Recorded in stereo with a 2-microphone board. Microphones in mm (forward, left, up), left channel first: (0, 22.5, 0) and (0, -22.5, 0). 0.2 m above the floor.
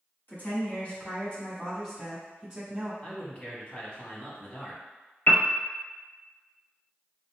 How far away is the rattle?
No rattle in this recording.